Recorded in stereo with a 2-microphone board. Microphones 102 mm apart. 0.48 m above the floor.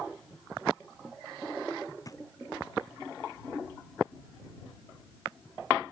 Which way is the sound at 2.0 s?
35° left (ahead or behind).